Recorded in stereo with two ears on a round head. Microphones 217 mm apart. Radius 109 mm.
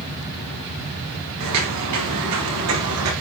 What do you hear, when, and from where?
1.4 s footsteps: 80° right, 7 m; by 3.1 s 70° right (ahead or behind), 7.5 m